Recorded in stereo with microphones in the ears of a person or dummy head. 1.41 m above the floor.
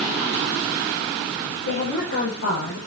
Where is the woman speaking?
85° left, 4.5 m.